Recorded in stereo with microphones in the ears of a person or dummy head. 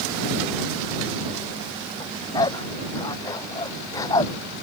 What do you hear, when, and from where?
2.0 s a dog barking: 20° left (ahead or behind)